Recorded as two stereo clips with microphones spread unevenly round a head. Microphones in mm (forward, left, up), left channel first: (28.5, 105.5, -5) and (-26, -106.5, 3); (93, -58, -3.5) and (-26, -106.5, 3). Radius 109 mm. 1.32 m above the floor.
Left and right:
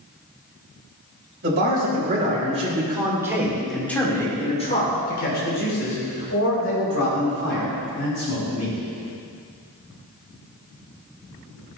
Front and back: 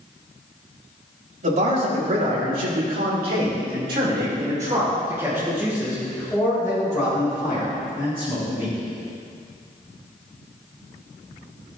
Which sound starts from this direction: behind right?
A man speaking, at 1.4 s.